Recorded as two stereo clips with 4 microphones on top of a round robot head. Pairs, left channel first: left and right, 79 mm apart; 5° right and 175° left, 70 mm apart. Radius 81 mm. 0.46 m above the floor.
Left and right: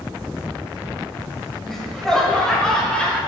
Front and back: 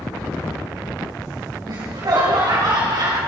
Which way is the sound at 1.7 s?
175° left.